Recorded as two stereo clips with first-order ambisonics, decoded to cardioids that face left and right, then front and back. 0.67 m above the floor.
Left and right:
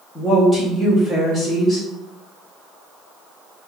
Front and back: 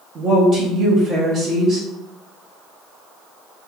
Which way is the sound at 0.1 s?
155° left.